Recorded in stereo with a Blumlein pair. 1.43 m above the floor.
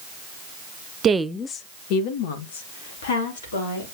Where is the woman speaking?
25° right, 0.6 m; by 3.9 s 60° left, 4 m.